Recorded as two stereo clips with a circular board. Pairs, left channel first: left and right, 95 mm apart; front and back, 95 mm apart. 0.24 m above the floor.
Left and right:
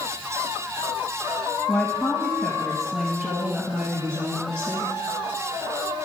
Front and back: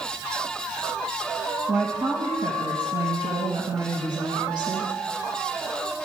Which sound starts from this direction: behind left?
A woman speaking, at 1.7 s.